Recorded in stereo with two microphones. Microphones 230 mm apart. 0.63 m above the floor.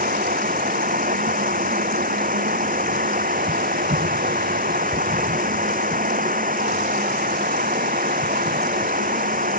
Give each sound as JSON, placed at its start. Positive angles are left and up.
{"t": 0.0, "sound": "running water", "side_deg": -35}